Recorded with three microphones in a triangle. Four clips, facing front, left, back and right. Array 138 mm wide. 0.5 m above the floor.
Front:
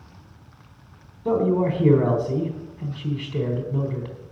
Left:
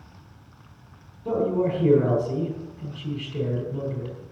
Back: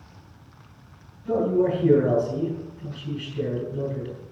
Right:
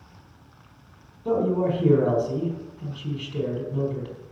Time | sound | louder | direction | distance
1.2 | a man speaking | right 1 dB, front 1 dB | 10° right | 3.5 m